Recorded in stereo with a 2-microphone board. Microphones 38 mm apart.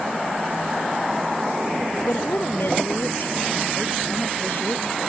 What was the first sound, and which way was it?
A woman speaking, 65° left (ahead or behind).